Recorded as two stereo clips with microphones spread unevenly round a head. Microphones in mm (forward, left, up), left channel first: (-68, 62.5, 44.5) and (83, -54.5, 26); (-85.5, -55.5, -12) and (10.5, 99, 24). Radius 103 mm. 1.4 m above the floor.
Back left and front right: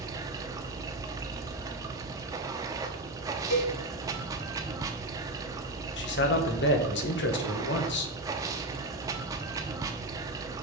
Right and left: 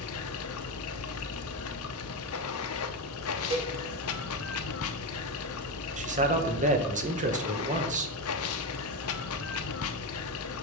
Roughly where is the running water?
Behind right.